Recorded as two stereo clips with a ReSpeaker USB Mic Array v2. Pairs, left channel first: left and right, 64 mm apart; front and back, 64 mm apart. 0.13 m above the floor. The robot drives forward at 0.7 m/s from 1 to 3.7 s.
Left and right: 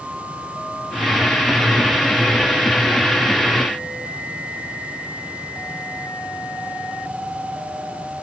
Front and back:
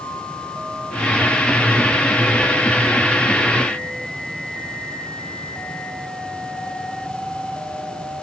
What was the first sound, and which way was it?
Only background noise.